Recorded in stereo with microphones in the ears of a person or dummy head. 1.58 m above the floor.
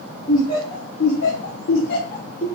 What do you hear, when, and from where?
0.3 s laughter: 30° left (ahead or behind), 1.2 m; by 2.5 s 35° left (ahead or behind), 0.8 m